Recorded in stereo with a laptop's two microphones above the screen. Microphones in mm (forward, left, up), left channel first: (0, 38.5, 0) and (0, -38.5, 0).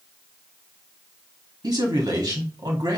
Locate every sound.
1.6 s a man speaking: 60° right (ahead or behind), 1.9 m